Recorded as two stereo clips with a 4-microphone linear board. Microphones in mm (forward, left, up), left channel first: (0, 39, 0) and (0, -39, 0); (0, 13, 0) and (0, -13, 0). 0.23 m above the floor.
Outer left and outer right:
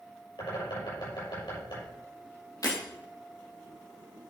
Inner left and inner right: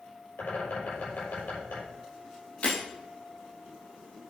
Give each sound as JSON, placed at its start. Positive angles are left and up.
{"t": 0.4, "sound": "a bird", "side_deg": 70, "distance_m": 6.5}
{"t": 2.6, "sound": "breaking glass", "side_deg": 50, "distance_m": 4.5}